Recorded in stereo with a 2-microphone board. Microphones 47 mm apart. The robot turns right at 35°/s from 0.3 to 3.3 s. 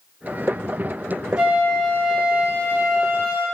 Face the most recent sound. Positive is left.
turn(degrees=-90)